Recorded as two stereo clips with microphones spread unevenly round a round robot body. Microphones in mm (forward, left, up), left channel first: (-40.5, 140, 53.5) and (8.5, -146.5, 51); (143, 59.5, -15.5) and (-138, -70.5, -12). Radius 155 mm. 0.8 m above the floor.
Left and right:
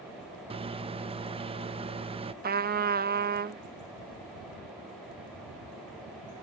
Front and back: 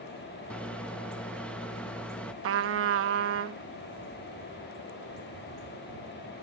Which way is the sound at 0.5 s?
55° right.